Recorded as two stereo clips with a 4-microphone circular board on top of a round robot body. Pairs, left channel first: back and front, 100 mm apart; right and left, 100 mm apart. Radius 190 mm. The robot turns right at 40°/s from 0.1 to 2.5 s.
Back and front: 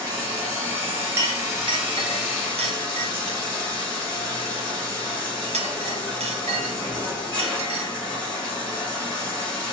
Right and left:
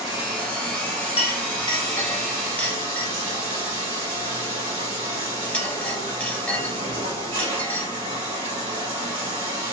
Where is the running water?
5° left, 2.5 m; by 9.7 s 100° left, 2.5 m.